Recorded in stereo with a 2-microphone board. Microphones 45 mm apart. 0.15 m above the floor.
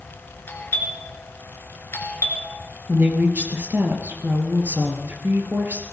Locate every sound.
0.5 s a doorbell: 50° left (ahead or behind), 3 m
2.9 s a woman speaking: 50° right (ahead or behind), 2.5 m